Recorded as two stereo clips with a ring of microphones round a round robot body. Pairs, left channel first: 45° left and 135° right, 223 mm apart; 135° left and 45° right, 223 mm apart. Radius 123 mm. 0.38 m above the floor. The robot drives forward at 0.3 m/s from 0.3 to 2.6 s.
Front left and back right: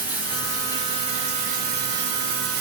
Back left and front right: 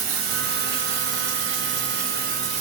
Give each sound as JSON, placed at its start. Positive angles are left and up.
{"t": 0.0, "sound": "running water", "azimuth_deg": -55, "distance_m": 0.8}